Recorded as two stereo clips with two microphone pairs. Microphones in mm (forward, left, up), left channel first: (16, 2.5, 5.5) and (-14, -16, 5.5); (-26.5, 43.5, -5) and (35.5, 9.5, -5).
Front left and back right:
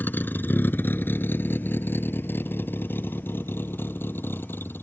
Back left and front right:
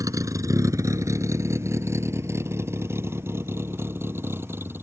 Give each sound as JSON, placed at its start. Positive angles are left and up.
{"t": 0.0, "sound": "a vehicle", "azimuth_deg": 5}